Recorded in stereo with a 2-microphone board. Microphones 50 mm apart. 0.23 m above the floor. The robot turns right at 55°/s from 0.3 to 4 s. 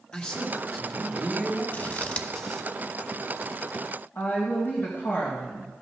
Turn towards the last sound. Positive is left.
turn(degrees=45)  # may be behind; listen again after turning